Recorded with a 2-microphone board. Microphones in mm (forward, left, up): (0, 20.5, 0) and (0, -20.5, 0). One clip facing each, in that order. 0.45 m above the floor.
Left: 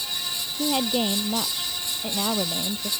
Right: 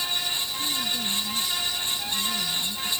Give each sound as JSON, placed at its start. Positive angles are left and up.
{"t": 0.6, "sound": "a woman speaking", "side_deg": 70}